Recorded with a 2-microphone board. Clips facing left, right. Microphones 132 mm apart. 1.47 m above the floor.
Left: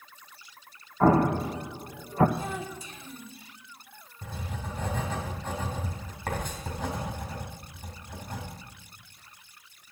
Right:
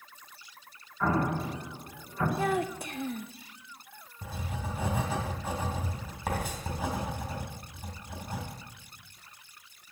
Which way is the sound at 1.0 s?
50° left (ahead or behind).